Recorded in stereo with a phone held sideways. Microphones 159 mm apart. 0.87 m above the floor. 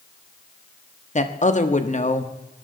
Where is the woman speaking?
50° left (ahead or behind), 1.4 m.